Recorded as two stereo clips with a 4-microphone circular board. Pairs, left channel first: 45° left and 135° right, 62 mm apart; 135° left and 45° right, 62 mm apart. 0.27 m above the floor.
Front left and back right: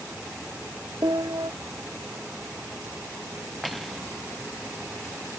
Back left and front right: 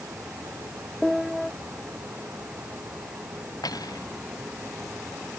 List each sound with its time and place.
1.0 s a piano: 135° right
3.6 s cutlery clinking: 135° left